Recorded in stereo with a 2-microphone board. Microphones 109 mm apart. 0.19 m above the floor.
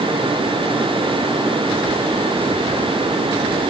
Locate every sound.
Only background noise.